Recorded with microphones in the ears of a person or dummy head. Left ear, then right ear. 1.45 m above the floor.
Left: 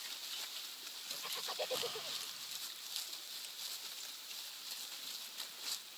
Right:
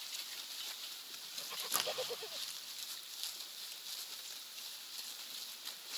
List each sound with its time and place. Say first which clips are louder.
1.7 s a crack: right 5 dB; 55° right (ahead or behind), 1.8 m